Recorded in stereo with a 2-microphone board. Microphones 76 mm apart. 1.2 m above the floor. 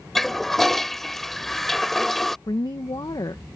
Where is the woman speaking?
70° left (ahead or behind).